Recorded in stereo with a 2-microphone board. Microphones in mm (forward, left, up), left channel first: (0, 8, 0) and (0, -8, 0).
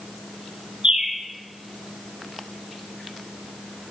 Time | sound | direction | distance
0.8 | a bird | 65° right (ahead or behind) | 2.5 m